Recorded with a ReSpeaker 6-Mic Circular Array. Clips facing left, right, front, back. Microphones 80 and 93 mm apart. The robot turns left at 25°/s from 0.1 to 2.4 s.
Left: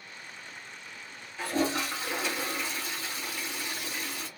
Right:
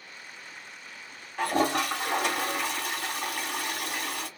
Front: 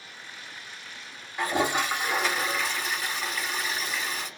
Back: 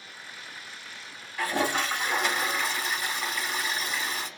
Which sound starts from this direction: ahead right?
A toilet flushing, at 1.4 s.